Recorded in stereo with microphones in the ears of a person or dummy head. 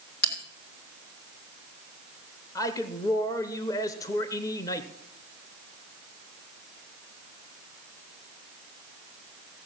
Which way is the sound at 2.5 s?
20° left (ahead or behind).